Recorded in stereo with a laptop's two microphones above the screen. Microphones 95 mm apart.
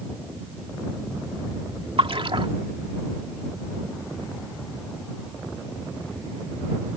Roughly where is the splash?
Right.